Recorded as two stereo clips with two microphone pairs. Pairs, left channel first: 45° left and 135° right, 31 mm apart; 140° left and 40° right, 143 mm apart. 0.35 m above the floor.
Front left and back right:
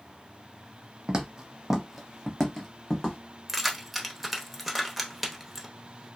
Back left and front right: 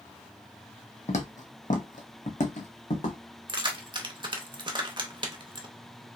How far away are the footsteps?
About 0.8 m.